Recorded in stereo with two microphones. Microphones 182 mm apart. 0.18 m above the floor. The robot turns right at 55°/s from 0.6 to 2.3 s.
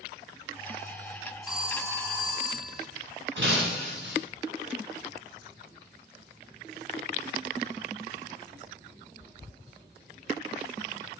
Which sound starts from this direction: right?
Breaking glass, at 3.4 s.